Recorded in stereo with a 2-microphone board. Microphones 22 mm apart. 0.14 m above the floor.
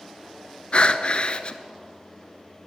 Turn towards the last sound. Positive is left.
turn(degrees=50)  # may be behind; listen again after turning